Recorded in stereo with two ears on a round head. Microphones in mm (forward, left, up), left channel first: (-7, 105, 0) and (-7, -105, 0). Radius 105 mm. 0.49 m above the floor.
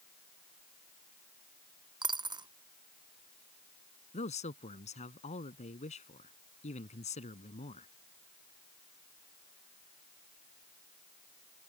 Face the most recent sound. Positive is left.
turn(degrees=30)  # may be behind; listen again after turning